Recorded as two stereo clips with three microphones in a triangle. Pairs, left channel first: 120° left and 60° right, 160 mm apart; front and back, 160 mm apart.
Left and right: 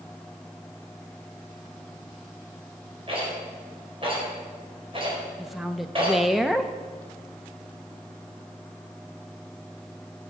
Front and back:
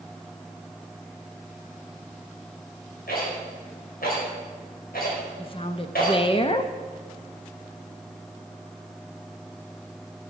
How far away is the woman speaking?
About 0.7 m.